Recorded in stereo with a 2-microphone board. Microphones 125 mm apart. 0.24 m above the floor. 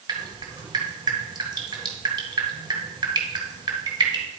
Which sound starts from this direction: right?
Dripping, at 0.1 s.